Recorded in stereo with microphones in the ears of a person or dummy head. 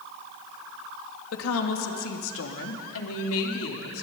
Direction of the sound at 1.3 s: 85° left.